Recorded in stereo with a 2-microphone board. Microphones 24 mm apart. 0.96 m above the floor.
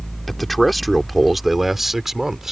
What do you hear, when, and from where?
0.3 s a man speaking: 5° left (ahead or behind); by 2.5 s 20° right (ahead or behind)